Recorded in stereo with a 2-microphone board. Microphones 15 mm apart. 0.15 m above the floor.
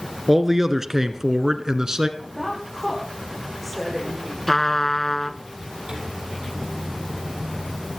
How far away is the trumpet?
About 0.7 m.